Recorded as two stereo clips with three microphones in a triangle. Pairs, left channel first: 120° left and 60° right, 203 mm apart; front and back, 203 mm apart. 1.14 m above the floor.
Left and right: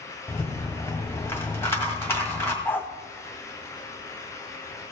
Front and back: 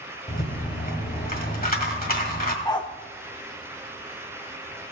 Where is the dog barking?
50° left, 0.8 m.